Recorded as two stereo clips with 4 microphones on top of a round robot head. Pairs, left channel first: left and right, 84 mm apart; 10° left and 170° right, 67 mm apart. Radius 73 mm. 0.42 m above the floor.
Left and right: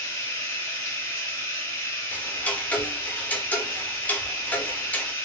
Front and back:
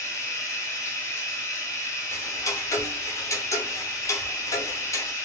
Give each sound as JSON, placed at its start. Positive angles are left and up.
{"t": 0.0, "sound": "running water", "azimuth_deg": 40, "distance_m": 2.0}
{"t": 2.1, "sound": "ticking", "azimuth_deg": 25, "distance_m": 0.9}